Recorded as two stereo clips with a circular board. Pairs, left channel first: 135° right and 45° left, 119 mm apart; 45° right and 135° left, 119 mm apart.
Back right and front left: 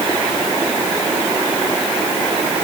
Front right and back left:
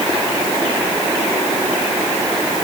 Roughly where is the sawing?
No sawing in this recording.